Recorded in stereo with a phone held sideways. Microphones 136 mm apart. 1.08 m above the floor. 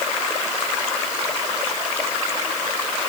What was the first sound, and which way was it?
Only background noise.